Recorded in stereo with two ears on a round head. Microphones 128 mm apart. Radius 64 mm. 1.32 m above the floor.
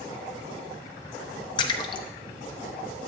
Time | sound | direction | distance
1.6 | a splash | 30° left (ahead or behind) | 0.7 m